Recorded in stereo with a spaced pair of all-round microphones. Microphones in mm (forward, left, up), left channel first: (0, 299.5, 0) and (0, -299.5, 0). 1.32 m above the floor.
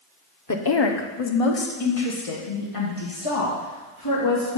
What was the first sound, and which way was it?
A woman speaking, 30° left (ahead or behind).